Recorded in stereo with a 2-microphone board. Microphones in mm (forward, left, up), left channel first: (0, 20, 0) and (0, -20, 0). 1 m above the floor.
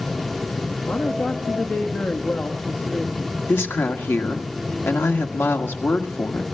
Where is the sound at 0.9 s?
65° left (ahead or behind), 1.6 m.